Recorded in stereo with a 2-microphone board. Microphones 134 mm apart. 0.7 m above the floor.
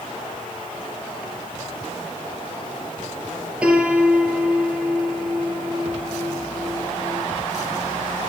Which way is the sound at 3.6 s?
10° right (ahead or behind).